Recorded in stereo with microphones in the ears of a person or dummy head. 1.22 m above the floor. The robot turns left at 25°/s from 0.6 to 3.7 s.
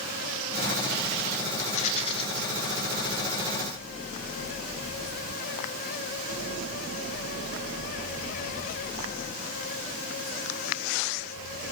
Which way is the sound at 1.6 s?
40° left (ahead or behind).